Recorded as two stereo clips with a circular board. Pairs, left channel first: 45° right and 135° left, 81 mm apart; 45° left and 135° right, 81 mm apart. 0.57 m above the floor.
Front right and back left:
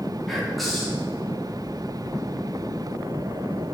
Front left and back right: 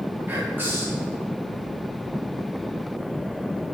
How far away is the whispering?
About 0.9 m.